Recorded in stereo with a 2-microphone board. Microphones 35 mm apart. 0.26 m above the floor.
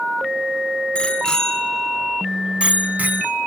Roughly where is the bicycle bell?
Left.